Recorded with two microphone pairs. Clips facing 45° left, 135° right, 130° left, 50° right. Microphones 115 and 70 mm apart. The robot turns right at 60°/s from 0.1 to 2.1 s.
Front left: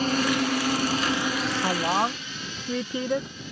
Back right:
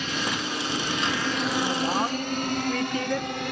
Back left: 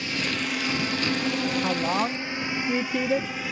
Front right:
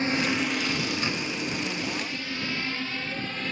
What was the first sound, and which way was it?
A drone, 5° left.